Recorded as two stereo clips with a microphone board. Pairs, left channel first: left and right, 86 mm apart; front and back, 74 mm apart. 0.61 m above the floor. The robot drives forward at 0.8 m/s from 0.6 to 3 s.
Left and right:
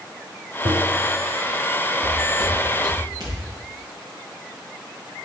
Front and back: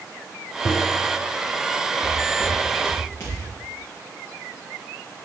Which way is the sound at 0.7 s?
75° right.